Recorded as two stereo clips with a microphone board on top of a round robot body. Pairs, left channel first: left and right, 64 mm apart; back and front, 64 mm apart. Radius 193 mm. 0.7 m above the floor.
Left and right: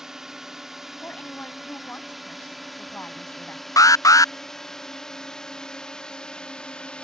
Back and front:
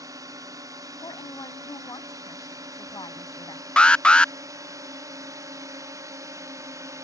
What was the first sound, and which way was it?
A drone, 10° right.